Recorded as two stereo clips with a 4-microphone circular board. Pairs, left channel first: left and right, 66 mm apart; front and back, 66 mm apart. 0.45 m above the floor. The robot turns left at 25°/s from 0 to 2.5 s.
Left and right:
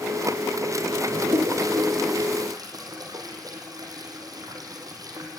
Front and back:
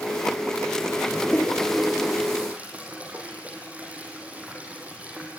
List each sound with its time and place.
1.1 s a toilet flushing: 80° right, 4 m; by 5.4 s 110° right, 4 m